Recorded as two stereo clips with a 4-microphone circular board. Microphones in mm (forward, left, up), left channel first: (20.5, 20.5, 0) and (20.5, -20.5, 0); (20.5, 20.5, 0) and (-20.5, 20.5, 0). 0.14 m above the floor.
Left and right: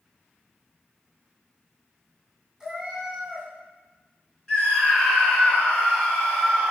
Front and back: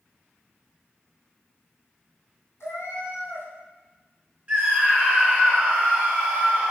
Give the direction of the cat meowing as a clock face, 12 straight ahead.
12 o'clock.